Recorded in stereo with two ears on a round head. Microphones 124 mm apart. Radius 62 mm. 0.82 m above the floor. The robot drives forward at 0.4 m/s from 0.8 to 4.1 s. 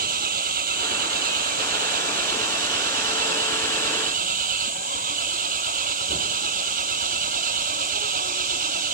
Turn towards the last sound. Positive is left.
turn(degrees=-65)  # may be behind; listen again after turning